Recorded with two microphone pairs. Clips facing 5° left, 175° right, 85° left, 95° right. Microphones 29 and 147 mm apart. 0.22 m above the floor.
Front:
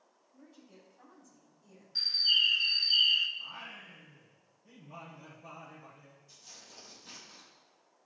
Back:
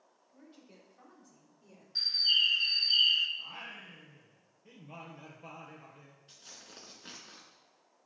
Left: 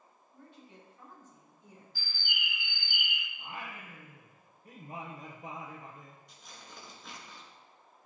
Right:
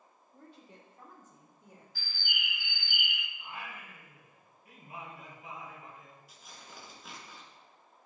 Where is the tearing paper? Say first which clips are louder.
Back 2 dB, even; straight behind, 2.5 m.